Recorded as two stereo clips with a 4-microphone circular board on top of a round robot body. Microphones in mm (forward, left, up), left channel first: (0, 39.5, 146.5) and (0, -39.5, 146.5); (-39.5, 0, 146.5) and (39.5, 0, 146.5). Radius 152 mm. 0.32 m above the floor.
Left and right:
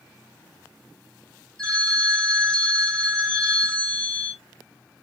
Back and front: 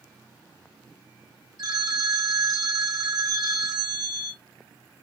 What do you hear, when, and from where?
1.6 s a phone ringing: 15° left, 1.5 m